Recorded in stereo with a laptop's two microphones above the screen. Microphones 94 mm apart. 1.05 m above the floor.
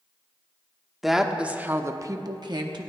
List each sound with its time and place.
1.0 s a woman speaking: centre (ahead or behind), 1.2 m; by 2.9 s 55° right (ahead or behind), 1.1 m